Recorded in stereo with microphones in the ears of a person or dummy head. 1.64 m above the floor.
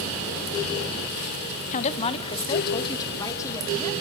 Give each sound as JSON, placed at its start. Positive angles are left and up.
{"t": 1.7, "sound": "a woman speaking", "side_deg": 35, "distance_m": 0.9}